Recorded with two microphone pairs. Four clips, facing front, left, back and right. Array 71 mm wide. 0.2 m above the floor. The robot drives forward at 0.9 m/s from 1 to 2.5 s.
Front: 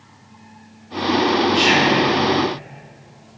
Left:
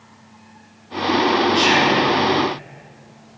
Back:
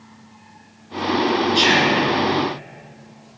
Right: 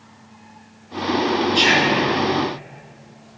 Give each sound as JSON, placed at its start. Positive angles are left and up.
{"t": 1.6, "sound": "whispering", "azimuth_deg": -105, "distance_m": 2.5}